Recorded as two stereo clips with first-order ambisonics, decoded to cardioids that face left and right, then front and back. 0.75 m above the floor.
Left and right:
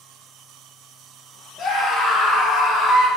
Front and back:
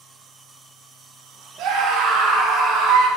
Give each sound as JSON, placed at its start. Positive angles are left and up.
{"t": 1.6, "sound": "a scream", "azimuth_deg": 145, "distance_m": 5.5}